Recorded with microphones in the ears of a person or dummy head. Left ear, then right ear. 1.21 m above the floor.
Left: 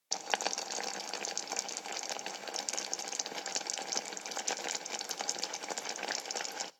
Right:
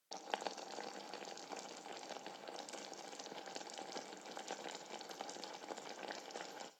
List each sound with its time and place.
0.1 s boiling: 50° left (ahead or behind), 0.6 m